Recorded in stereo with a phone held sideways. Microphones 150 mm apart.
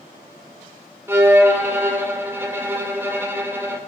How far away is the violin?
About 2 m.